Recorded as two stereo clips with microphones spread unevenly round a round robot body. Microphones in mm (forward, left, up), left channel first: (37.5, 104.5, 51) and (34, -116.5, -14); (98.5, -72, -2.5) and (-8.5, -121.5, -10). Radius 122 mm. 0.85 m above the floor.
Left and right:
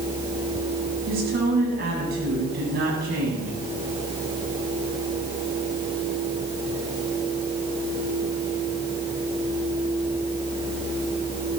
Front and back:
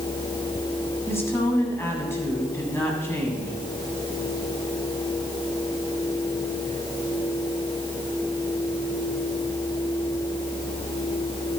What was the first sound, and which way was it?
A woman speaking, 45° right.